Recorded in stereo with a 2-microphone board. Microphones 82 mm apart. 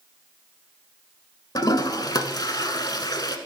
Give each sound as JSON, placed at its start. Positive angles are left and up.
{"t": 1.6, "sound": "a toilet flushing", "side_deg": 55, "distance_m": 0.8}